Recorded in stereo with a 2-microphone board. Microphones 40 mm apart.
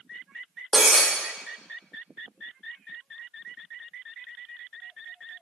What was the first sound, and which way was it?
Breaking glass, 5° left (ahead or behind).